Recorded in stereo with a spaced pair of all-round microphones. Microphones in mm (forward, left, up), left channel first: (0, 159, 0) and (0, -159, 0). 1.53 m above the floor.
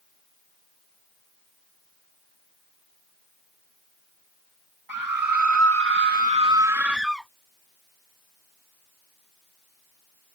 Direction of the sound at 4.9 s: 80° right.